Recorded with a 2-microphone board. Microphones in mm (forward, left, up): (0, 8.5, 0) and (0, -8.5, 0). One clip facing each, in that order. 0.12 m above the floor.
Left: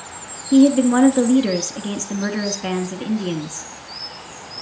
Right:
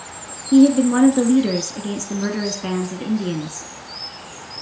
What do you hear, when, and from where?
0.5 s a woman speaking: 10° left (ahead or behind), 1.2 m